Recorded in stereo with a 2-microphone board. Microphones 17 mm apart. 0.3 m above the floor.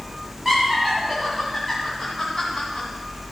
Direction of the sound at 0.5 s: 5° right (ahead or behind).